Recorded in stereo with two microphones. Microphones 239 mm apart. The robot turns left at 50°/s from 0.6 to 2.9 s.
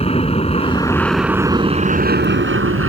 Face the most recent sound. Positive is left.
turn(degrees=-85)